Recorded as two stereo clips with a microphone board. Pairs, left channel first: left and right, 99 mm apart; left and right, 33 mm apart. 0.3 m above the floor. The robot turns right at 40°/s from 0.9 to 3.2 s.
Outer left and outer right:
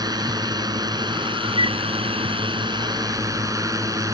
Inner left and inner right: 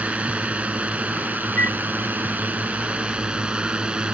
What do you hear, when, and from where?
0.0 s a drone: 130° right; by 4.2 s 40° right
1.6 s a flute: 75° left (ahead or behind); by 1.8 s 65° left (ahead or behind)